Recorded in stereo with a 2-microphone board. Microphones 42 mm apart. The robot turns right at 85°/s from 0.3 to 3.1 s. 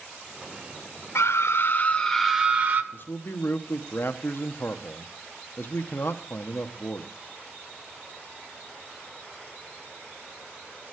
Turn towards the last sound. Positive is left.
turn(degrees=55)  # may be behind; listen again after turning